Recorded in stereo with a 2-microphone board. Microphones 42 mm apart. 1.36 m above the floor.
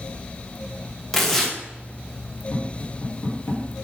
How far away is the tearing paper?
About 1.2 m.